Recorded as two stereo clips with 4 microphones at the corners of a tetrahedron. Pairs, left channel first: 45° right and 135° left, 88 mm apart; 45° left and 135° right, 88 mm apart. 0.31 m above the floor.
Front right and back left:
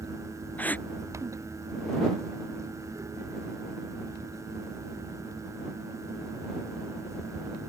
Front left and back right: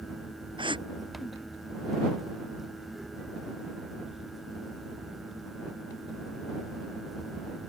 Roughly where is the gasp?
Behind right.